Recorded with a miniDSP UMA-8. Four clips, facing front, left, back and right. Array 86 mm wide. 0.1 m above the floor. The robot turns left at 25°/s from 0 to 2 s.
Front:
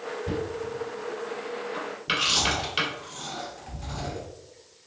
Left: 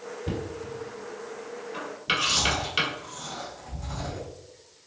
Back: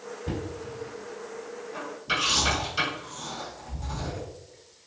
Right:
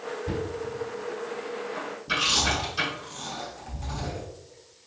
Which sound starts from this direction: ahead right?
Chewing, at 2.1 s.